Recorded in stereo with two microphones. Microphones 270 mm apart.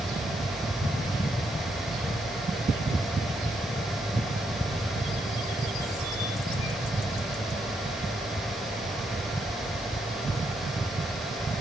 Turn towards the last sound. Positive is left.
No sound to turn to.